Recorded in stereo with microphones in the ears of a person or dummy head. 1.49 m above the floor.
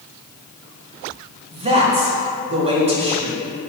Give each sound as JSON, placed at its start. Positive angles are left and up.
{"t": 1.5, "sound": "a man speaking", "side_deg": -35, "distance_m": 1.4}